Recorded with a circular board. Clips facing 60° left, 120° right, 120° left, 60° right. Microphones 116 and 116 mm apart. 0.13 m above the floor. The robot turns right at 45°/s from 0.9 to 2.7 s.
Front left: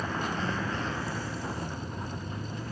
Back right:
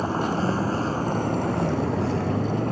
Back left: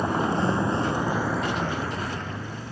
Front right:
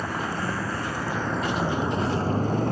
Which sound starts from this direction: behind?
A vehicle, at 0.0 s.